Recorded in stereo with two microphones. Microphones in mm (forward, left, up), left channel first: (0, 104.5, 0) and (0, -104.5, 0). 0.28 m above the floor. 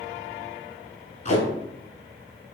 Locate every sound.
1.2 s tape being pulled: 35° left (ahead or behind), 1.2 m